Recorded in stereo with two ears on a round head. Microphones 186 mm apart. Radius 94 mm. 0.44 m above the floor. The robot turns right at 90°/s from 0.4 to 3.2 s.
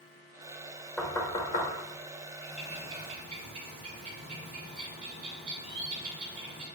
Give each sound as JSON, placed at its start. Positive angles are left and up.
{"t": 1.0, "sound": "knocking", "side_deg": 0, "distance_m": 1.2}
{"t": 2.4, "sound": "a bird", "azimuth_deg": 170, "distance_m": 2.0}